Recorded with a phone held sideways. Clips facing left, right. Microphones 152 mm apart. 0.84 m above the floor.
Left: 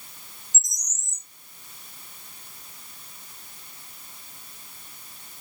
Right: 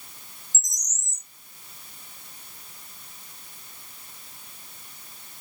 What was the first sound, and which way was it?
A bird, 20° left (ahead or behind).